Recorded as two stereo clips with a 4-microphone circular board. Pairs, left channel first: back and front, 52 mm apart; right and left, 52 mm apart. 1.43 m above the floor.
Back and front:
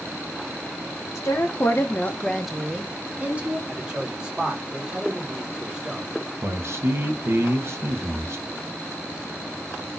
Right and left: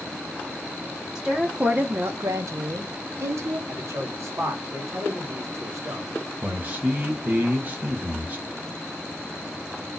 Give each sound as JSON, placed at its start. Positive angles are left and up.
{"t": 1.1, "sound": "a woman speaking", "azimuth_deg": 175, "distance_m": 0.7}
{"t": 3.7, "sound": "a man speaking", "azimuth_deg": 75, "distance_m": 1.3}
{"t": 6.4, "sound": "a man speaking", "azimuth_deg": 35, "distance_m": 0.8}